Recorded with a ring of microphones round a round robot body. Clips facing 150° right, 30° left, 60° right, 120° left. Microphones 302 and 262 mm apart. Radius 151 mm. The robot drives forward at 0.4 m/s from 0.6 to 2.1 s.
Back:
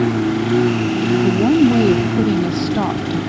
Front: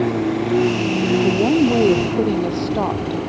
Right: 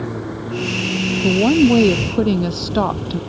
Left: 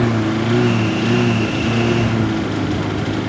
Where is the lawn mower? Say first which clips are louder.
Back 2 dB, left 9 dB; 150° left; by 3.3 s 160° left.